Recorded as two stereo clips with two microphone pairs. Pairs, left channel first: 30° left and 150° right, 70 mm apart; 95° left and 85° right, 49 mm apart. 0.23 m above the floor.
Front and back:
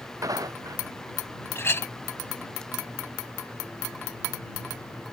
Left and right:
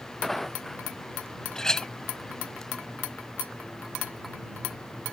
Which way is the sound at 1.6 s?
30° left.